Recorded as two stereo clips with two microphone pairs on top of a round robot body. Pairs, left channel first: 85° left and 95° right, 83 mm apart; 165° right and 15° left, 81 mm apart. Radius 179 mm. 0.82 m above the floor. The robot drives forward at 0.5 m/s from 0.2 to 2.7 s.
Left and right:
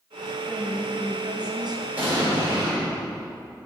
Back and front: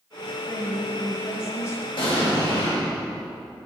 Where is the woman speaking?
100° right, 1.7 m; by 1.9 s 120° right, 2.0 m.